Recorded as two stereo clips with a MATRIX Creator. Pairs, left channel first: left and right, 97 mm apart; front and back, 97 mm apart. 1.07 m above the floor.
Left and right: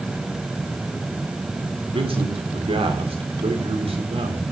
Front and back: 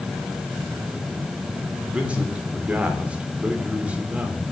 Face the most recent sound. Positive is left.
turn(degrees=-105)